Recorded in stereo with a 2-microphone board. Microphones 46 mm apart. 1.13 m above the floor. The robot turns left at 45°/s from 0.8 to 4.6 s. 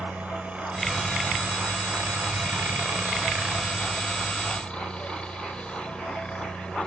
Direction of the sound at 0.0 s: 30° right.